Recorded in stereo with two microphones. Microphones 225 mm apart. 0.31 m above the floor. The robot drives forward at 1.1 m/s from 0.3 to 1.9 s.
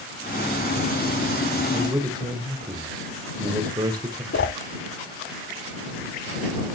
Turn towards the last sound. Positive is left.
turn(degrees=75)  # may be behind; listen again after turning